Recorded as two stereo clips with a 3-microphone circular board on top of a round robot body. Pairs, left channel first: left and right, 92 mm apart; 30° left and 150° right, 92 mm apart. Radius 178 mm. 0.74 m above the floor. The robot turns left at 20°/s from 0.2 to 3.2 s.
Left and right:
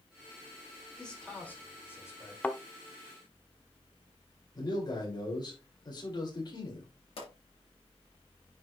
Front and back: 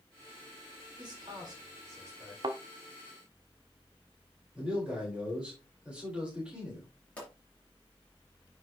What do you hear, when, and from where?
1.0 s a man speaking: 175° left, 4 m; by 2.3 s 145° left, 4 m
2.4 s a thud: 170° left, 0.6 m; by 2.6 s 165° left, 0.6 m
4.5 s a man speaking: 130° left, 4 m
7.2 s a pop: 105° left, 4 m